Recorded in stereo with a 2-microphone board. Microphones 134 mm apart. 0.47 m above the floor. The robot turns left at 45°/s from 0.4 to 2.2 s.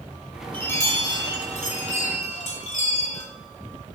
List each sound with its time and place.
0.5 s a chime: 165° left, 2 m; by 3.2 s 90° left, 2 m